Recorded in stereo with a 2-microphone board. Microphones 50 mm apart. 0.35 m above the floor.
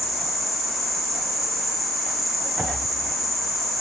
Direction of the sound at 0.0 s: Centre (ahead or behind).